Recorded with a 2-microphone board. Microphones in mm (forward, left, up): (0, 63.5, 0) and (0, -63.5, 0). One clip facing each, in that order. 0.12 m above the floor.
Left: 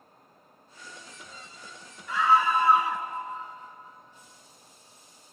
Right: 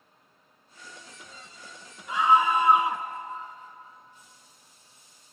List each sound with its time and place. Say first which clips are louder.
2.1 s a scream: right 1 dB; 20° right (ahead or behind), 1.2 m